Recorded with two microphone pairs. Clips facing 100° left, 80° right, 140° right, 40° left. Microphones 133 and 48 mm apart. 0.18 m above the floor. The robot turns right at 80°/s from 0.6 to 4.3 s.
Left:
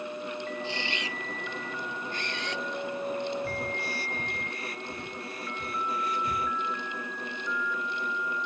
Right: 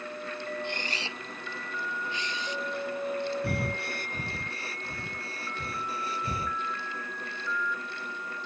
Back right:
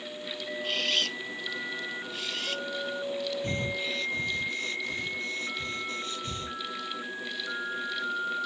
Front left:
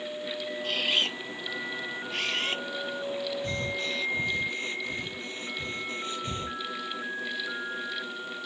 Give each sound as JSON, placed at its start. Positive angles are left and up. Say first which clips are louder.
{"t": 0.6, "sound": "a camera shutter", "louder": "left 1 dB, front left 1 dB", "azimuth_deg": -55}
{"t": 3.4, "sound": "breathing", "louder": "right 1 dB, even", "azimuth_deg": -90}